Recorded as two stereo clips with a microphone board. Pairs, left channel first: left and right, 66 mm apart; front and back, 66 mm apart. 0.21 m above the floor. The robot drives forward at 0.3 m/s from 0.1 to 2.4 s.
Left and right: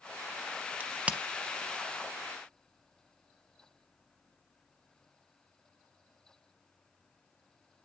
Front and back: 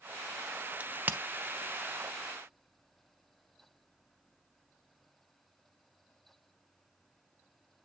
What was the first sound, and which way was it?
A crack, 135° right.